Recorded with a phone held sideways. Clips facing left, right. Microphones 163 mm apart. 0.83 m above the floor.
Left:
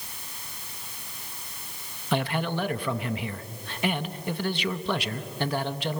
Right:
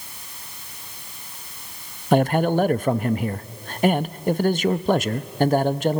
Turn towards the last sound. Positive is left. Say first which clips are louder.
# right 9 dB
turn(degrees=-45)  # may be behind; listen again after turning